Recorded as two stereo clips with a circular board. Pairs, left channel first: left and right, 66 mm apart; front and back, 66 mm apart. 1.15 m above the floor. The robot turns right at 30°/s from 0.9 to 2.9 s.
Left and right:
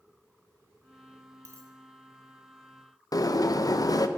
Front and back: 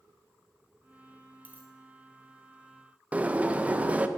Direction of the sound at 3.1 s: 110° left.